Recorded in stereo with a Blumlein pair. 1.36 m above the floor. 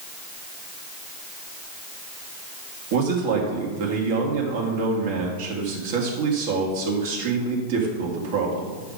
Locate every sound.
2.9 s a man speaking: 55° right, 2 m